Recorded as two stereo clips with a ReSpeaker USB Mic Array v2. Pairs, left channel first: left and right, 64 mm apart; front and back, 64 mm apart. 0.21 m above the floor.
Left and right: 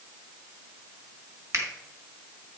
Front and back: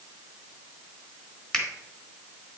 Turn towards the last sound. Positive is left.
turn(degrees=-75)